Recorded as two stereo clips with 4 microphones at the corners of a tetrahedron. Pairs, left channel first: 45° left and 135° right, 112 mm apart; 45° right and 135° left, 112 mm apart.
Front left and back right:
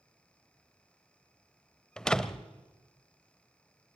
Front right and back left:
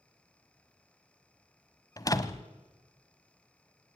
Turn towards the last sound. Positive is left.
turn(degrees=-35)